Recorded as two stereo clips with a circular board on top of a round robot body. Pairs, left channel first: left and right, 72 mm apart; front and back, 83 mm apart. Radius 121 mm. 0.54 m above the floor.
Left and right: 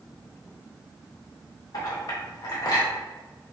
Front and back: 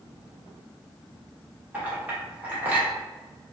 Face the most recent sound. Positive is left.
turn(degrees=110)